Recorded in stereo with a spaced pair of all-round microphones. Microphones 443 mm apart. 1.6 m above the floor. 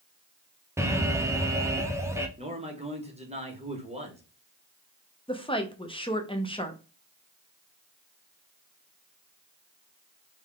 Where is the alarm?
5° right (ahead or behind), 0.5 m.